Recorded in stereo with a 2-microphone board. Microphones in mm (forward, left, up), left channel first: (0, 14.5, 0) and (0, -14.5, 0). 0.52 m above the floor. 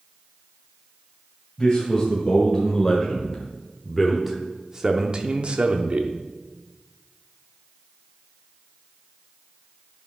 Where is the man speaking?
20° left (ahead or behind), 2 m; by 6.1 s 40° right (ahead or behind), 0.9 m.